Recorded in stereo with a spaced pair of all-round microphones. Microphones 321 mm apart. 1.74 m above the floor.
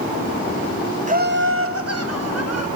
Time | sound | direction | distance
1.1 | laughter | 25° right (ahead or behind) | 0.7 m